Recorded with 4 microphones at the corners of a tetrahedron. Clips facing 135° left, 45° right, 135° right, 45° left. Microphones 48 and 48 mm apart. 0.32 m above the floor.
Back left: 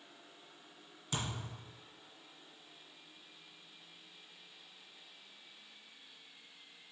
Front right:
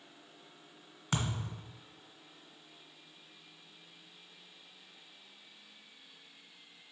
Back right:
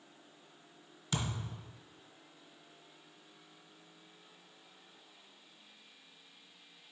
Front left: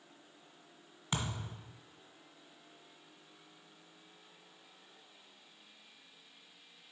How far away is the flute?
No flute in this recording.